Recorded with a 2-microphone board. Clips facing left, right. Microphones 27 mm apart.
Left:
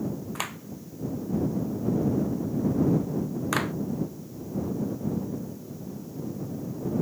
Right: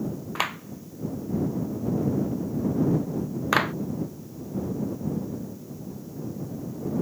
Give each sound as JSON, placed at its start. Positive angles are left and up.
{"t": 0.3, "sound": "a clap", "side_deg": -25}